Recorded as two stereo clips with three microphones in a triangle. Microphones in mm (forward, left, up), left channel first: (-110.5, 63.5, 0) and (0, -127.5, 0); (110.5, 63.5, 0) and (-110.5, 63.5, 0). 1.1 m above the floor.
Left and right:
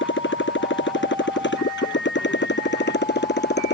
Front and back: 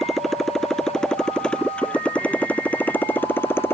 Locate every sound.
0.0 s a motorcycle: 90° left; by 3.7 s 80° left